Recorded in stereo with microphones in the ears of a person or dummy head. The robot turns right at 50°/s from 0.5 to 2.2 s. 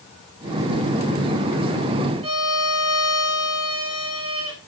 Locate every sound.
2.2 s a violin: 30° right (ahead or behind), 2.0 m